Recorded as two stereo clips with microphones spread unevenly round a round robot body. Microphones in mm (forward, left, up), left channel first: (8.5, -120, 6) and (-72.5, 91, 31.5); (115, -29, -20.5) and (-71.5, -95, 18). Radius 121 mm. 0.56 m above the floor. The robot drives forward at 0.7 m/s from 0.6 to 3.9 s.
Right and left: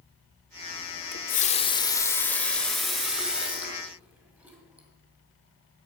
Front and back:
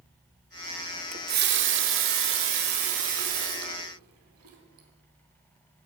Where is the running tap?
105° right, 0.6 m; by 4.9 s 165° right, 2 m.